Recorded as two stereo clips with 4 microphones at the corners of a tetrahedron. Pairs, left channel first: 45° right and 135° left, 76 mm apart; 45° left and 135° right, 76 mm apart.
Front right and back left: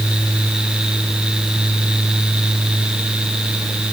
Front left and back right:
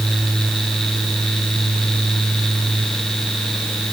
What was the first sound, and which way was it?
Only background noise.